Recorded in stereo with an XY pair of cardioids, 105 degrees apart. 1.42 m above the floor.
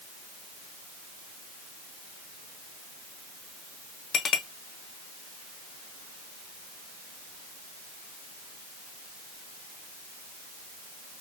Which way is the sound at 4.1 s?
50° left.